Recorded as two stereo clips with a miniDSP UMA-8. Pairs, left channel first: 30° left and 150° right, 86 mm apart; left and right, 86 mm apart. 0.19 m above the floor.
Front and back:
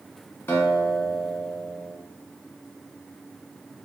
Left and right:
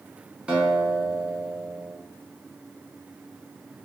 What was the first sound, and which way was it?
A guitar, 20° right.